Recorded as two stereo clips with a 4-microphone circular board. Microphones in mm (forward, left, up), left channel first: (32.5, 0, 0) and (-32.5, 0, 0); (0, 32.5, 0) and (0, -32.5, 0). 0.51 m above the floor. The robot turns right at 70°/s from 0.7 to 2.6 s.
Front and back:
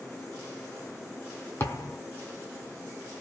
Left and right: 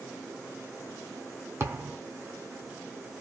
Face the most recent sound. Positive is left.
turn(degrees=30)